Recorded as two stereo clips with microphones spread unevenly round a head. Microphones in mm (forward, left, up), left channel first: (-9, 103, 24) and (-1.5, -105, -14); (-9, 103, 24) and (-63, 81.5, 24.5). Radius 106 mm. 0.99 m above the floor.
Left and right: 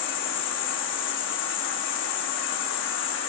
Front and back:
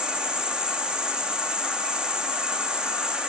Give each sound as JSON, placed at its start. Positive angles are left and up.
{"t": 0.0, "sound": "an insect", "azimuth_deg": 125, "distance_m": 2.5}